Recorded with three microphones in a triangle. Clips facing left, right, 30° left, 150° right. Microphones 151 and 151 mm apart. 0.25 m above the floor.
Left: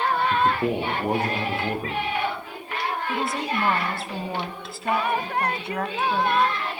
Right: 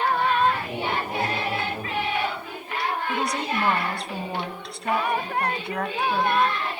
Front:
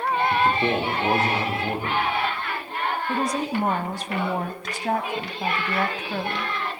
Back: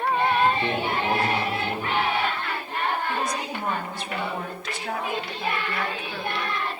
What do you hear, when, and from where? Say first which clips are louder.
0.3 s a man speaking: left 1 dB, front 1 dB; 95° left, 7 m
3.1 s a woman speaking: even, front 4 dB; 5° left, 1.4 m